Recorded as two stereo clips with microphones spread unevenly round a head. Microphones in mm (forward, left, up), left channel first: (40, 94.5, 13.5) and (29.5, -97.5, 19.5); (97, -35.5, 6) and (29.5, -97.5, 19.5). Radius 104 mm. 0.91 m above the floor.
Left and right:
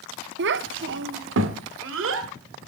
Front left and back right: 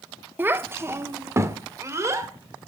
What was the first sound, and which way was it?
A child speaking, 75° right.